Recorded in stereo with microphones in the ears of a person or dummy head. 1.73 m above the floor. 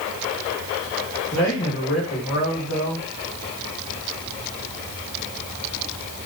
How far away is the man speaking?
About 2 m.